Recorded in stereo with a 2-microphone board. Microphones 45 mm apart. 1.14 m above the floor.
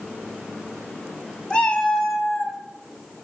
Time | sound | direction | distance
1.5 | a cat meowing | 20° left (ahead or behind) | 1.0 m